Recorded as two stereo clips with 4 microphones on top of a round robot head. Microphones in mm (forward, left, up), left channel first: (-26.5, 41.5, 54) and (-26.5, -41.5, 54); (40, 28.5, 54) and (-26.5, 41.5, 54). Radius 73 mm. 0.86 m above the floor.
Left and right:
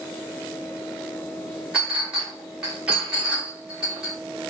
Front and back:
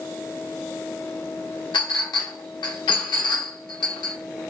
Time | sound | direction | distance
1.7 | a clink | 10° right | 1.0 m